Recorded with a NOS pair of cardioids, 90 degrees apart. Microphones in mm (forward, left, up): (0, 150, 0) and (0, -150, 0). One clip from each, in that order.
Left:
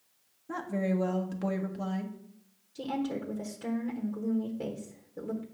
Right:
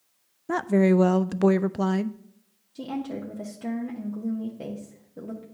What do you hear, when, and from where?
0.5 s a woman speaking: 50° right, 0.5 m
2.8 s a woman speaking: 10° right, 1.1 m